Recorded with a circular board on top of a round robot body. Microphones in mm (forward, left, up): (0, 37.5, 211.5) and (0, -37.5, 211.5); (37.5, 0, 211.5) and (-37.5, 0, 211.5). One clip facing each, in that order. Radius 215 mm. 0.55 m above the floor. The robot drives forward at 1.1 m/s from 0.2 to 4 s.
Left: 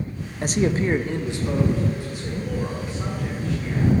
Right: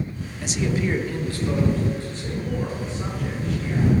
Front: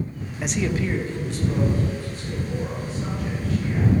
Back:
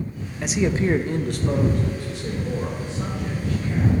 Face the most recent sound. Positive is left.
turn(degrees=175)